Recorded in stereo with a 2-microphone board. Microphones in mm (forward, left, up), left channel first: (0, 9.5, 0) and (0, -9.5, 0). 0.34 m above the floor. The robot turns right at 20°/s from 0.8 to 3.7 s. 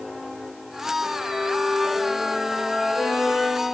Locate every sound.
1.0 s a violin: 45° left, 7 m; by 3.8 s 95° left, 7 m